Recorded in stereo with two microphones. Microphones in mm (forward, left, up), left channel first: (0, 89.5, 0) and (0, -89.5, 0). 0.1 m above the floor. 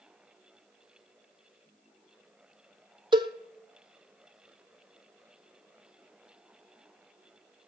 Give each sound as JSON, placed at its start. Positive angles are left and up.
{"t": 3.1, "sound": "a cowbell", "side_deg": -25, "distance_m": 0.6}